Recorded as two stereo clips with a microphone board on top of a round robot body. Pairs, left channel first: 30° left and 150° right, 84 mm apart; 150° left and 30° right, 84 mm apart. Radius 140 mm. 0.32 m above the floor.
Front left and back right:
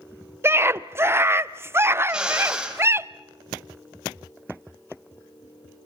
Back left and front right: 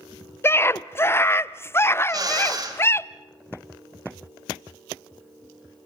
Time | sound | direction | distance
0.4 | a scream | straight behind | 1.1 m
2.1 | a drill | 70° right | 3.5 m